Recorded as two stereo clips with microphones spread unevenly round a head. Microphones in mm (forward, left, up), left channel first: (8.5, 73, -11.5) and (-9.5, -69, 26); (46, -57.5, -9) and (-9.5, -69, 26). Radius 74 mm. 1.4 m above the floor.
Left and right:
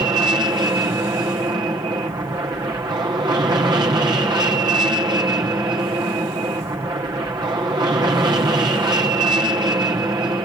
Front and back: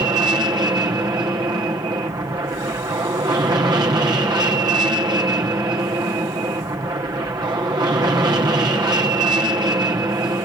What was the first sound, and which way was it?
An aircraft, 165° right.